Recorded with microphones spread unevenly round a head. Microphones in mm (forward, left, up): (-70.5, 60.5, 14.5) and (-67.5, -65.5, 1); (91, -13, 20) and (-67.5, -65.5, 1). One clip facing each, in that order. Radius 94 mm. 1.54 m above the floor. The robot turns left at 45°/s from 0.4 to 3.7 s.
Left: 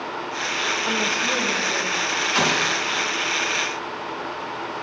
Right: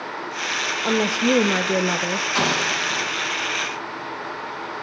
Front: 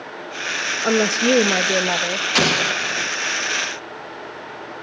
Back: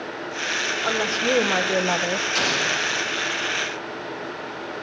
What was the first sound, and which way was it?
A woman speaking, 15° right.